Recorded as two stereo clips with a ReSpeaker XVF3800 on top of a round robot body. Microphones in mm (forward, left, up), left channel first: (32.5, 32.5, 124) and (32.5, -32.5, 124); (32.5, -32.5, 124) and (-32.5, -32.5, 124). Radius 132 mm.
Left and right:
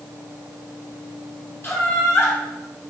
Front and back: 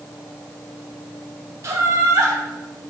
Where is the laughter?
140° left, 1.9 m.